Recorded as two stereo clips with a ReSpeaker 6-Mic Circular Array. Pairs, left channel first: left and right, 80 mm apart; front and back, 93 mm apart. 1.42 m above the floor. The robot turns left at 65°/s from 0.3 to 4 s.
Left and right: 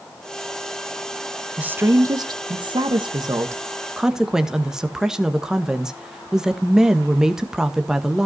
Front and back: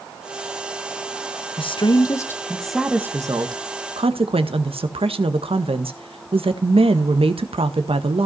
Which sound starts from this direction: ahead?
A woman speaking, at 1.6 s.